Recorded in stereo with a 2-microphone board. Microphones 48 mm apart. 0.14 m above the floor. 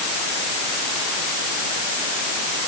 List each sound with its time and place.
Only background noise.